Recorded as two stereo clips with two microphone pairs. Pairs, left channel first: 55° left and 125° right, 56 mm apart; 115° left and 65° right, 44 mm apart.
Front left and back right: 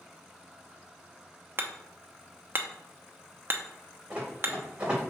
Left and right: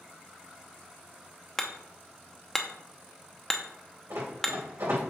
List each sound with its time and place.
1.6 s hammering: 165° right, 0.7 m
4.1 s running footsteps: 55° right, 3.5 m